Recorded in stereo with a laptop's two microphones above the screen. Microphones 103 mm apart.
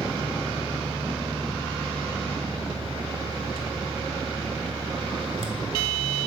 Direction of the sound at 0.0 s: 60° right (ahead or behind).